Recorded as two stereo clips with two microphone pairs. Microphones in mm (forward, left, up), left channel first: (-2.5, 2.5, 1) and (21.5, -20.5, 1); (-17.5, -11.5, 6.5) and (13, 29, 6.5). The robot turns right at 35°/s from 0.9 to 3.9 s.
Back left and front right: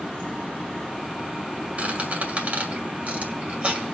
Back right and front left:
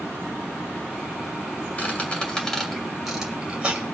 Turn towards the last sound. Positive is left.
turn(degrees=0)